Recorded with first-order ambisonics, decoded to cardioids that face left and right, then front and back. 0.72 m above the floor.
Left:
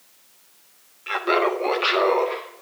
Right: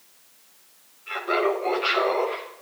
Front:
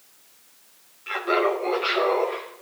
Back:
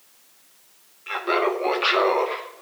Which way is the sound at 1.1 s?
95° left.